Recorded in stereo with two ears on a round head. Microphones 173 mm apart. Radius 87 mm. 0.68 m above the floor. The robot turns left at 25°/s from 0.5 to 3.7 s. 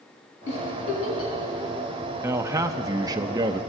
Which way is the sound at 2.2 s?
15° right (ahead or behind).